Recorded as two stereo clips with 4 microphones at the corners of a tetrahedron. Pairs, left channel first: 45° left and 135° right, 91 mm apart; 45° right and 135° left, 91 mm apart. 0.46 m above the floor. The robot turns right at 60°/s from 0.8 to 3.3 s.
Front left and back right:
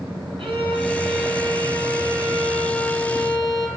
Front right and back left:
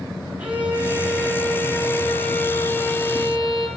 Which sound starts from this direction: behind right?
A violin, at 0.4 s.